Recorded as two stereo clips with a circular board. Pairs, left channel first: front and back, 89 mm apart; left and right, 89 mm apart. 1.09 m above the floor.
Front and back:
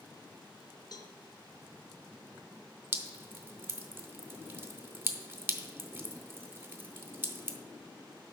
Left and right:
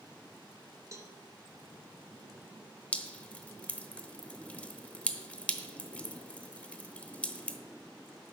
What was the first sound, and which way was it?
A cowbell, 35° right.